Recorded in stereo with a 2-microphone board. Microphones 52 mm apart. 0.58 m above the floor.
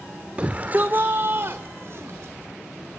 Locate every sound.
0.4 s a shout: 25° right (ahead or behind), 1.3 m; by 2.3 s 60° right (ahead or behind), 2 m